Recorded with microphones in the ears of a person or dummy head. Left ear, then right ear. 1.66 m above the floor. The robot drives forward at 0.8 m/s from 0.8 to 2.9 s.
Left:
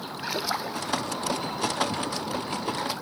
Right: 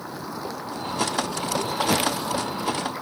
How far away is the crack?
I don't hear a crack.